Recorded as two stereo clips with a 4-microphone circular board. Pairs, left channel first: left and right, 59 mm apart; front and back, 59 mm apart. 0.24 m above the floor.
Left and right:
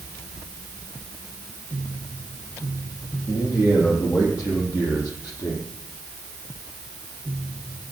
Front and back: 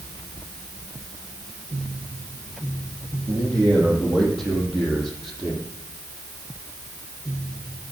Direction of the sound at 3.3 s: 80° left.